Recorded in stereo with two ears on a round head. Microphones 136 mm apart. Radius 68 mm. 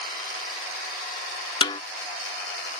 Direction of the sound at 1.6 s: 30° left (ahead or behind).